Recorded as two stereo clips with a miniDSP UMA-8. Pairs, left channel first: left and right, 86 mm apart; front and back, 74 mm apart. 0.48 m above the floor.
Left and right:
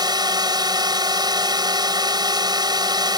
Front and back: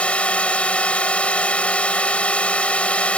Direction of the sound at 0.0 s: 70° right.